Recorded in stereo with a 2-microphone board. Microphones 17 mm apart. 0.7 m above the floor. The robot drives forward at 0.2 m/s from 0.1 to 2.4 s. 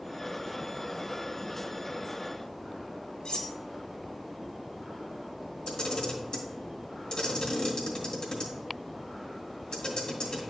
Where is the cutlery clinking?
85° left, 0.9 m.